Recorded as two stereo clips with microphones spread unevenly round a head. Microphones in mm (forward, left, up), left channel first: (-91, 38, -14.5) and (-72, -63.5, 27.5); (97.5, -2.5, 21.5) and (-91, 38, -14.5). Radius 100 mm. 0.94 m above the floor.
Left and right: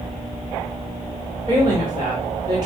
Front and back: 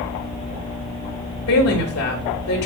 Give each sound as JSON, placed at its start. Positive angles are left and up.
{"t": 1.5, "sound": "a woman speaking", "azimuth_deg": -5, "distance_m": 3.0}